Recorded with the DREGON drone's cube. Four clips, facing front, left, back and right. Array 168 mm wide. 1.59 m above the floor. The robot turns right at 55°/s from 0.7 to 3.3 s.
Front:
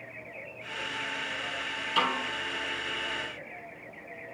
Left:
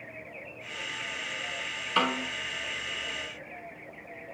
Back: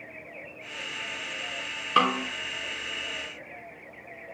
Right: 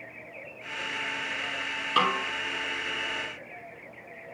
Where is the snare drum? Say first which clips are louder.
Right 2 dB, back 5 dB; 160° right, 6 m; by 2.3 s 140° right, 6 m.